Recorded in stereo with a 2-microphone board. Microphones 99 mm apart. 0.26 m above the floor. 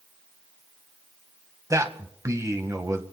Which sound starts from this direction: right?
A man speaking, at 1.7 s.